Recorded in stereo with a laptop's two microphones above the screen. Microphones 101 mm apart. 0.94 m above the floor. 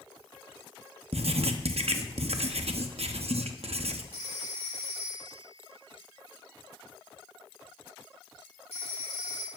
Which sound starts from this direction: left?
A phone ringing, at 4.1 s.